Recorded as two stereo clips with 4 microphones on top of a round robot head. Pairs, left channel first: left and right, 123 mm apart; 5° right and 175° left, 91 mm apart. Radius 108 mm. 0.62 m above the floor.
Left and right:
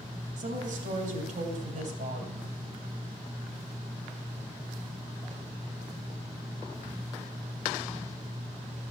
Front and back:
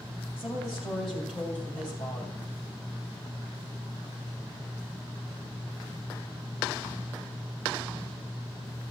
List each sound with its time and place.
0.4 s a woman speaking: 105° right, 3 m; by 2.5 s 70° right, 3 m